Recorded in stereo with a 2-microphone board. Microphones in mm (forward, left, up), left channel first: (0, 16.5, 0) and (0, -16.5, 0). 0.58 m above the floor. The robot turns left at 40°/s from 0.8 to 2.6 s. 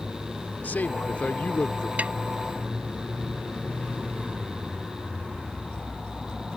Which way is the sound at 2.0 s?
45° right (ahead or behind).